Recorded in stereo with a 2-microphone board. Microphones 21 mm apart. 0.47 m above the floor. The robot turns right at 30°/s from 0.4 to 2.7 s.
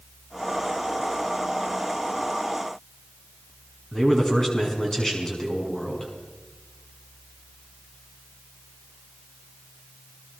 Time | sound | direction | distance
3.9 | a man speaking | 20° left (ahead or behind) | 5.5 m